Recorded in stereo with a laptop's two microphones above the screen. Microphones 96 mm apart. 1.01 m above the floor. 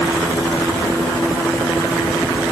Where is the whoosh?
No whoosh in this recording.